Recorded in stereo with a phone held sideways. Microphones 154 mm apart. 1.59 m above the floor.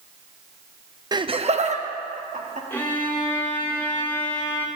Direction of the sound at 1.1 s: 25° right (ahead or behind).